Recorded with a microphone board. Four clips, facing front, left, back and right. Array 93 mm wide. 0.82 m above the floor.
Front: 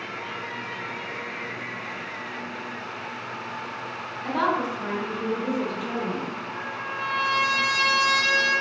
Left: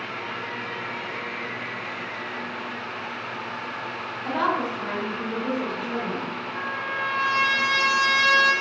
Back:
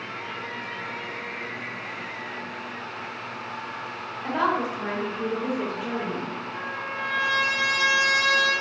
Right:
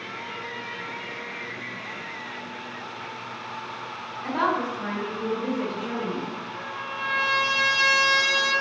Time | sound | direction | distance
4.2 | a woman speaking | straight behind | 0.8 m
6.5 | a trumpet | 130° left | 1.7 m